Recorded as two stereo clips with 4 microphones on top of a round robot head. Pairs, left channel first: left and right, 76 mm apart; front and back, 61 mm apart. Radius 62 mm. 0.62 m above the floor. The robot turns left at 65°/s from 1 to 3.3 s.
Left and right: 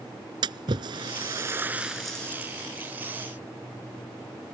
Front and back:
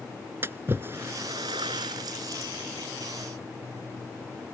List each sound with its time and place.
0.4 s a splash: 115° right; by 2.5 s 150° left